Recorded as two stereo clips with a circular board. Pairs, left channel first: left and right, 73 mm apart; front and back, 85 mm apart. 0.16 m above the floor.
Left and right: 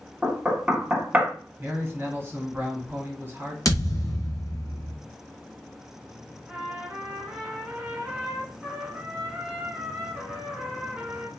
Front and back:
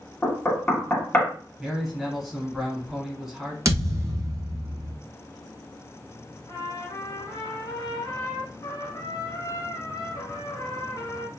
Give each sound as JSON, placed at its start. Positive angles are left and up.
{"t": 0.2, "sound": "knocking", "azimuth_deg": -50, "distance_m": 0.8}
{"t": 1.6, "sound": "a man speaking", "azimuth_deg": -100, "distance_m": 1.1}
{"t": 3.6, "sound": "a thud", "azimuth_deg": 125, "distance_m": 0.6}
{"t": 6.5, "sound": "a trumpet", "azimuth_deg": -15, "distance_m": 0.9}